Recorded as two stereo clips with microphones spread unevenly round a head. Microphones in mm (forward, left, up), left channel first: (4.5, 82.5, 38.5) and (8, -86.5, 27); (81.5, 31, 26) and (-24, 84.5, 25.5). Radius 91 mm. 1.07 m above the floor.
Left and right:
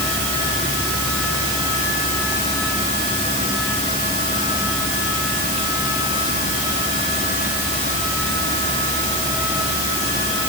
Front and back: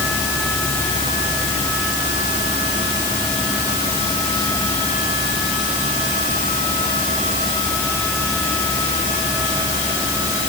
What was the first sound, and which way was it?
Only background noise.